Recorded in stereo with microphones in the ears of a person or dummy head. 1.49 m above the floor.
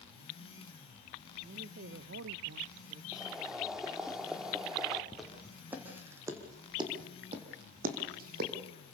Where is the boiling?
5° right (ahead or behind), 1.9 m.